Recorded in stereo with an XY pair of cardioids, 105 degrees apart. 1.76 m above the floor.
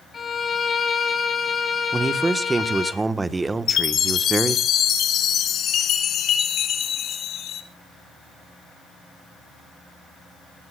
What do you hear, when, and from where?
0.1 s a violin: 35° left, 3.5 m
1.9 s a man speaking: 25° right, 1.5 m
3.7 s a chime: 65° left, 3 m